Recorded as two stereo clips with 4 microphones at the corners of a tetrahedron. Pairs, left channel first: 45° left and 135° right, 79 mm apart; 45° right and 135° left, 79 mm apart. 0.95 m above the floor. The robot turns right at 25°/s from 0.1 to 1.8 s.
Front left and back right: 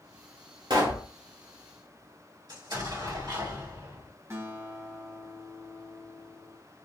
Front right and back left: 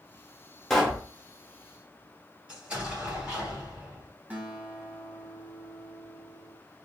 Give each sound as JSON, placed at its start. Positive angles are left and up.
{"t": 0.7, "sound": "a pop", "azimuth_deg": -130, "distance_m": 1.0}
{"t": 2.5, "sound": "an explosion", "azimuth_deg": -150, "distance_m": 2.0}
{"t": 4.3, "sound": "a guitar", "azimuth_deg": -165, "distance_m": 1.0}